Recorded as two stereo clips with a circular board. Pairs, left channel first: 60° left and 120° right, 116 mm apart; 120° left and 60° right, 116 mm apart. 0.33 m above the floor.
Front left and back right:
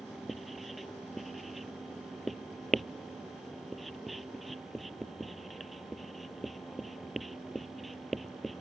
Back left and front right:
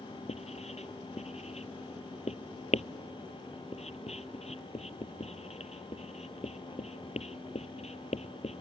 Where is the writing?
150° left.